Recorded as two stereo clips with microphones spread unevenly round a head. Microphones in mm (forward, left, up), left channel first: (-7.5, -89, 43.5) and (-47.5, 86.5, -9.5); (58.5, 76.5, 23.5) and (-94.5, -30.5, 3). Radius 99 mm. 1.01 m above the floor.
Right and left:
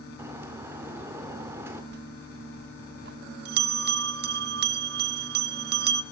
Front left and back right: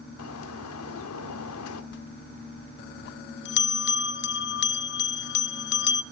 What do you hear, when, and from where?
0.2 s a bird: 20° left, 1.7 m
1.9 s a bell: 65° left, 0.6 m